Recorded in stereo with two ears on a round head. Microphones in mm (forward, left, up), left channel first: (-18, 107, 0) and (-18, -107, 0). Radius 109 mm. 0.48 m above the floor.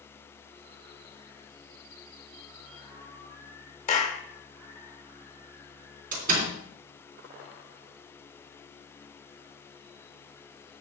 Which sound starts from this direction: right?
A door slam, at 6.1 s.